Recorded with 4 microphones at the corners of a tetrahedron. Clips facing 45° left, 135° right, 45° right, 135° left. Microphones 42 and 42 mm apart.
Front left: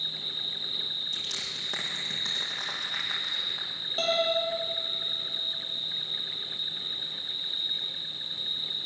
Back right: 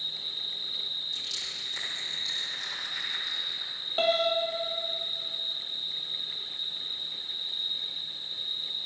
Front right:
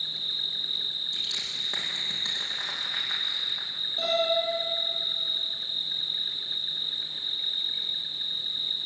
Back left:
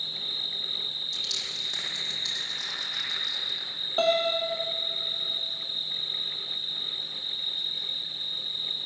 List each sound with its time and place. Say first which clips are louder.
0.0 s an insect: front left 2 dB, front right 1 dB; 20° left, 6 m
1.1 s crushing: front left 2 dB, front right 1 dB; 20° left, 8.5 m
4.0 s a piano: back right 1 dB, back left 2 dB; 155° left, 4.5 m